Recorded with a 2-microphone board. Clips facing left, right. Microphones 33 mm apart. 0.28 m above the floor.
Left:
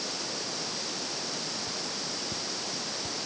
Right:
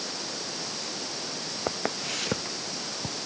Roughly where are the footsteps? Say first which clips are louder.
Right 5 dB; right.